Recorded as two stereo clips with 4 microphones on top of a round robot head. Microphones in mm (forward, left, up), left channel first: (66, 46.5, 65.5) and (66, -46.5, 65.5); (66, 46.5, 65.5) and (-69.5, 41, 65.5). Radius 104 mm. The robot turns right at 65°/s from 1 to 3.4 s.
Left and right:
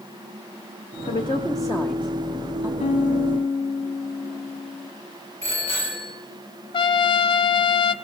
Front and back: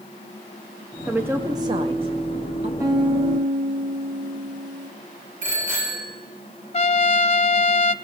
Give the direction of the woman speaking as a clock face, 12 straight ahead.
8 o'clock.